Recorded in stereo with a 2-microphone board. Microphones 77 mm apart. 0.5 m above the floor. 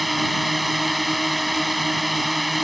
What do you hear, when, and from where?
0.0 s a drone: centre (ahead or behind)